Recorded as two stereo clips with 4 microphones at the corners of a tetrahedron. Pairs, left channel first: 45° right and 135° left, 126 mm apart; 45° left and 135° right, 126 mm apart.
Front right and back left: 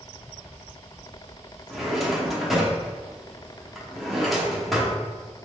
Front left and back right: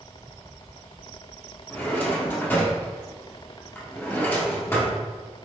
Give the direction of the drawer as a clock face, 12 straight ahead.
10 o'clock.